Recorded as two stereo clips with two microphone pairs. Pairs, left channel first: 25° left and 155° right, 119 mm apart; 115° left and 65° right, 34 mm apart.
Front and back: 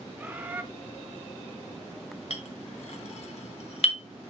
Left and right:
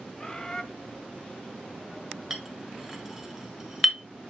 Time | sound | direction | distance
0.2 | a bird | 155° left | 0.8 m
2.3 | a clink | 15° left | 1.2 m